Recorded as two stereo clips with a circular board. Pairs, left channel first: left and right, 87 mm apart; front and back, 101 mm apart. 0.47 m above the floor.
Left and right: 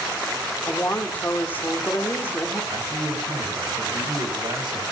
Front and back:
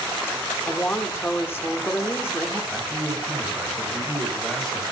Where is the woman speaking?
45° left, 1.3 m.